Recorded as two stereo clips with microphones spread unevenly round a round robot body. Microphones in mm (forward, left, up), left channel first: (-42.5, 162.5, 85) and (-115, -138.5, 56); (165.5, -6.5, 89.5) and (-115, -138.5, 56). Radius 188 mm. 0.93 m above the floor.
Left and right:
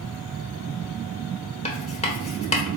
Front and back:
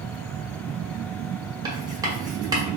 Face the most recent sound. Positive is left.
turn(degrees=140)